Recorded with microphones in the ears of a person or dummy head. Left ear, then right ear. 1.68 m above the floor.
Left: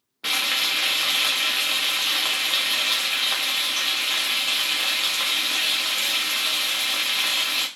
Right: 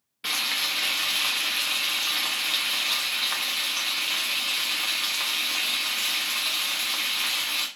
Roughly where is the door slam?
I don't hear a door slam.